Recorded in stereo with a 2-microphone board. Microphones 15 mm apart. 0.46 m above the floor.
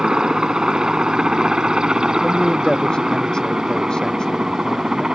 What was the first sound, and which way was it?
A helicopter, 65° right (ahead or behind).